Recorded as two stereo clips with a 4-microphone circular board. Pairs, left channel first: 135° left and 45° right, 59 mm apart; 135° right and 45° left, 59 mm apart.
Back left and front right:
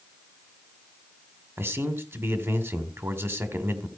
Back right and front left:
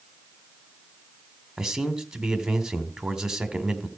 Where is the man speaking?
30° right, 2.0 m.